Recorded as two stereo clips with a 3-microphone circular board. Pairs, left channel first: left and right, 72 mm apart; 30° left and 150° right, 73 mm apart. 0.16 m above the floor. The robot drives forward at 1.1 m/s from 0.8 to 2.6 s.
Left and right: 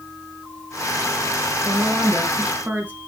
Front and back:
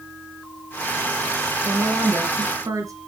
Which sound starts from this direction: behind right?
A woman speaking, at 1.6 s.